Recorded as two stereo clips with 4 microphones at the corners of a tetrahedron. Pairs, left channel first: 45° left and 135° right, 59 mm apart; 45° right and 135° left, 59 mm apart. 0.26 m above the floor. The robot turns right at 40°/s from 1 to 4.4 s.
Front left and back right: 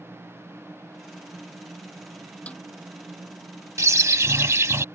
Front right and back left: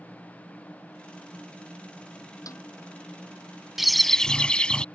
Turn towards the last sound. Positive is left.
turn(degrees=-115)